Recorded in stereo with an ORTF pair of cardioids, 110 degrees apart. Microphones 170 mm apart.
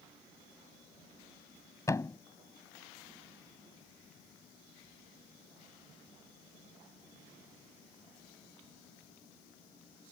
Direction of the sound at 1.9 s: 20° left.